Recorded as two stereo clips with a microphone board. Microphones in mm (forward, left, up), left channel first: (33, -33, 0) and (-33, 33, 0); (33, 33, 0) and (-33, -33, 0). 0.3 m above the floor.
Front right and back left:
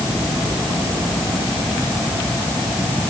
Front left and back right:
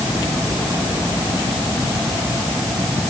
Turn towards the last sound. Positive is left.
No sound to turn to.